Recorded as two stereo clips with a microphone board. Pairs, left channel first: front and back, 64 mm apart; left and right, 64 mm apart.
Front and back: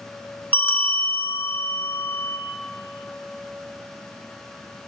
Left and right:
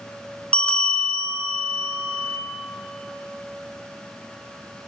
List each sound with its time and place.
0.5 s a bell: 30° left, 0.7 m